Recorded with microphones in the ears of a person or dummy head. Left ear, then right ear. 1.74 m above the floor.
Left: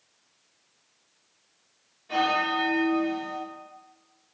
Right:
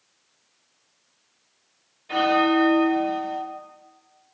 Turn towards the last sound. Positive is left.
turn(degrees=-15)  # may be behind; listen again after turning